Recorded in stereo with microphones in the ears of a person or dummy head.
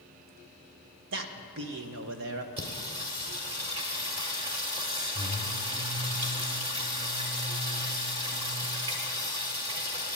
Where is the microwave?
I don't hear a microwave.